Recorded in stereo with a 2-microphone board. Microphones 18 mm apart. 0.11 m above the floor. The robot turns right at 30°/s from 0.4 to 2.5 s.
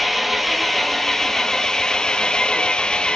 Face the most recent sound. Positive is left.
turn(degrees=55)